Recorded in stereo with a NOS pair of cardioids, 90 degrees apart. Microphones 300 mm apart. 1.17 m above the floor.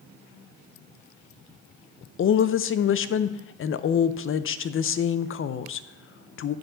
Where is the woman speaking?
45° left, 0.6 m.